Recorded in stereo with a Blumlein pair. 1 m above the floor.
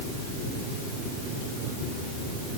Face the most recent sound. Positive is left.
No sound to turn to.